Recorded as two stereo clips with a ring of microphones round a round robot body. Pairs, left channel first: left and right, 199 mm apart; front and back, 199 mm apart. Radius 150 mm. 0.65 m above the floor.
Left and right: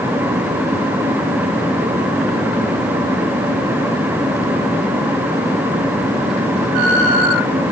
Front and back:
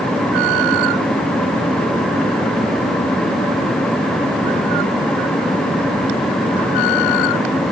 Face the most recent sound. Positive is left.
No sound to turn to.